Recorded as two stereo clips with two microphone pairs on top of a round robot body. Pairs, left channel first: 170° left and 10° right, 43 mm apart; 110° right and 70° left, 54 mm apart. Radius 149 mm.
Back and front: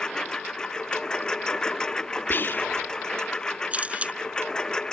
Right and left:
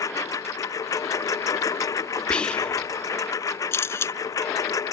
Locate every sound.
0.0 s a lawn mower: 115° right
2.3 s whispering: 175° right
3.7 s a camera shutter: 65° right